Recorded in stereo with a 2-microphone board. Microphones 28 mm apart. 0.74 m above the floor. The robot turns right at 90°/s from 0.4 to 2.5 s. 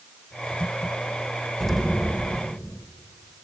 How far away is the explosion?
About 0.6 m.